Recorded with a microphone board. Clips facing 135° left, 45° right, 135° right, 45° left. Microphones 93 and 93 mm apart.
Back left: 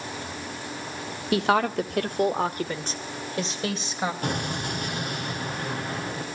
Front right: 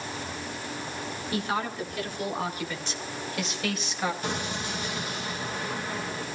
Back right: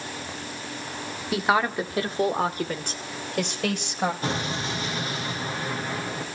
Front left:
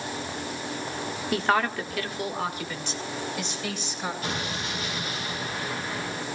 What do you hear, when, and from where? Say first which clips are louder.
1.3 s a woman speaking: back left 8 dB, back right 2 dB; 135° left, 1.6 m; by 4.1 s 160° right, 3.5 m
4.2 s an explosion: back left 3 dB, back right 3 dB; 170° left, 5.5 m